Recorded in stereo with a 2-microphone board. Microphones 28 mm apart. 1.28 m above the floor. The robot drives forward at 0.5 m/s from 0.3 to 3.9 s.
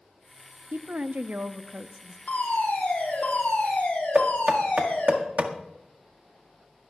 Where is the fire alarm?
75° left (ahead or behind), 6 m; by 5.2 s 80° left, 6 m.